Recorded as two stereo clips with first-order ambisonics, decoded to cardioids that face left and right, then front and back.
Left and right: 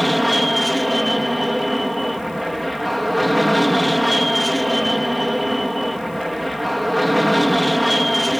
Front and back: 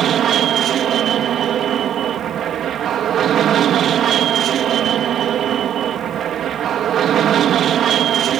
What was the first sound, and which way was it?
An aircraft, straight behind.